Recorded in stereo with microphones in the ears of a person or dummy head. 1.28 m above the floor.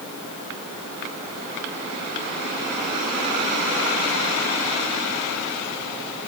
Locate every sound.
Only background noise.